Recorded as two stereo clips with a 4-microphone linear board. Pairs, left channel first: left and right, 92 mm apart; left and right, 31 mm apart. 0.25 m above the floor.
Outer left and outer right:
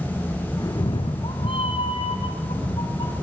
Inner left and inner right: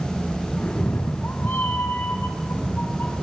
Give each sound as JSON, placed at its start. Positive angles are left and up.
{"t": 0.6, "sound": "a cat meowing", "side_deg": 40, "distance_m": 1.4}